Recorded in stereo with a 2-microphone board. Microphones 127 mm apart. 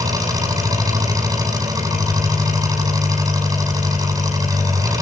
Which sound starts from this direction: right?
An engine running, at 0.0 s.